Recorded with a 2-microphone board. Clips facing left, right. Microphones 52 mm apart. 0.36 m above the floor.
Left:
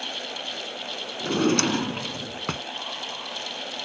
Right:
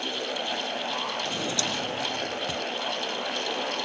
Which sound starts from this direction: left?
A drawer, at 1.2 s.